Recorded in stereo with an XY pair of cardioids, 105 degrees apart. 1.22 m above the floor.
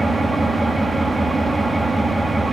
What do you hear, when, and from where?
0.0 s an engine running: 20° right, 1.2 m